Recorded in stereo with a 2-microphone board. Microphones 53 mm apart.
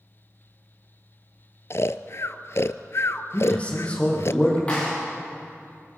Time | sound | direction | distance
1.7 | snoring | 60° left (ahead or behind) | 0.6 m
3.3 | a man speaking | 25° left (ahead or behind) | 6 m
4.7 | a clap | 25° left (ahead or behind) | 9 m